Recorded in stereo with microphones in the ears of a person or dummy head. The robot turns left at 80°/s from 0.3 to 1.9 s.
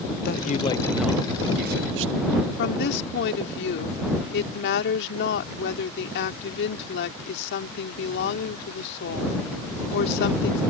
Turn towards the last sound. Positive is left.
turn(degrees=65)  # may be behind; listen again after turning